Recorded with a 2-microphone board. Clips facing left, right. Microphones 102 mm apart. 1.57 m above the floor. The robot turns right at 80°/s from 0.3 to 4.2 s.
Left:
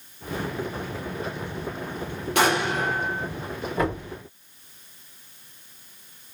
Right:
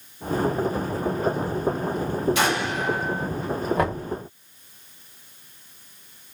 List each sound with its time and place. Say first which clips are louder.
2.4 s an explosion: left 2 dB; 70° left, 2 m; by 3.2 s 145° left, 2 m
3.8 s knocking: right 2 dB; 55° right (ahead or behind), 2.5 m; by 4.1 s 75° right (ahead or behind), 2.5 m